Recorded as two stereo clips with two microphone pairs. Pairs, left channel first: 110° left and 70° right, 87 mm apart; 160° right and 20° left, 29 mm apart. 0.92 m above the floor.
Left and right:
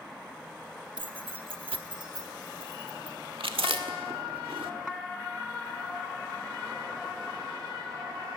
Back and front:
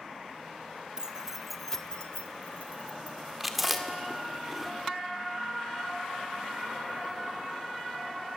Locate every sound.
1.0 s keys jangling: 40° right, 1.2 m; by 3.1 s 140° right, 1.8 m
3.4 s chewing: 65° right, 1.7 m